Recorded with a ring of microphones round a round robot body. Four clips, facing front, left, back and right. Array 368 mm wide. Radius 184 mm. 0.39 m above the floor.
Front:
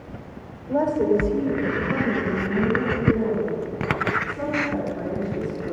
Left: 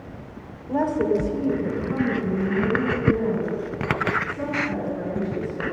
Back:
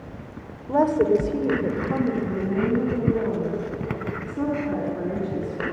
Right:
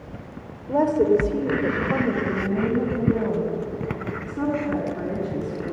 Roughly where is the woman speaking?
Behind.